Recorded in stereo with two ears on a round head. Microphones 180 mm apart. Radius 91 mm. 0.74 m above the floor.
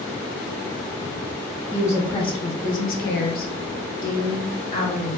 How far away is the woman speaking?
About 1.0 m.